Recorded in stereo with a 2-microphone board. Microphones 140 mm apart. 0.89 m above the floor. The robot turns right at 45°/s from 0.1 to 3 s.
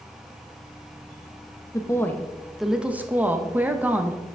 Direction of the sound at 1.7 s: 140° left.